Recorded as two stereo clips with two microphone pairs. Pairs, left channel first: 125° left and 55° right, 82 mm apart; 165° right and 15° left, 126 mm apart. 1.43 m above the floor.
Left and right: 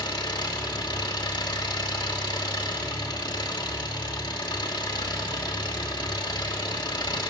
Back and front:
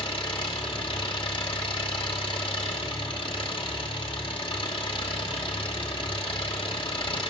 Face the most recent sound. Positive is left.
turn(degrees=150)